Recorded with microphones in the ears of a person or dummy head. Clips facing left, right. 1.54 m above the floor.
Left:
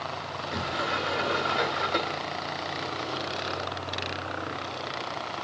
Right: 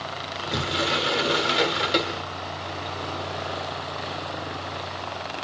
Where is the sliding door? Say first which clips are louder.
Right 5 dB; 40° right (ahead or behind), 0.8 m.